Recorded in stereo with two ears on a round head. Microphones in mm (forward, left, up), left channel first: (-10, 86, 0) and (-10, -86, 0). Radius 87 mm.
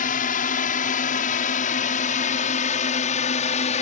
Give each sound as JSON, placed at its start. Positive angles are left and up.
{"t": 0.0, "sound": "a drone", "side_deg": 45}